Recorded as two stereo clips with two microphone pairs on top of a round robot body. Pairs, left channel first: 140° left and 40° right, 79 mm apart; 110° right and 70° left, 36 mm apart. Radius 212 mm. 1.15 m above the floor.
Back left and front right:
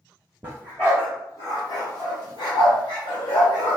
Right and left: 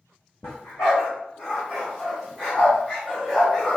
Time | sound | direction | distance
0.4 | a dog barking | 80° right | 0.6 m